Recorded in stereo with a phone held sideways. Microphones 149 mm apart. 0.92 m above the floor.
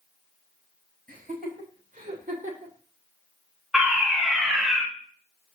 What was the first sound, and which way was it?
Laughter, 85° right.